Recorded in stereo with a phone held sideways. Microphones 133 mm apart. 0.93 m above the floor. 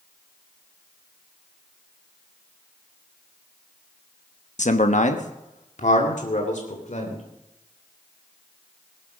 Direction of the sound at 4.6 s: 65° left (ahead or behind).